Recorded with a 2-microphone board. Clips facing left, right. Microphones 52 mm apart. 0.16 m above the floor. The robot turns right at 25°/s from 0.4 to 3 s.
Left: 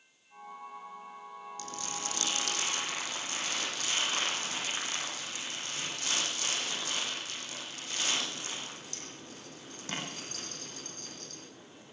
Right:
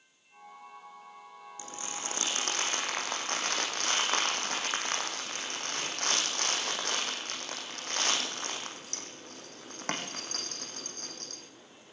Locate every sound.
1.6 s crumpling: 160° right, 5.5 m; by 11.4 s 125° right, 5.5 m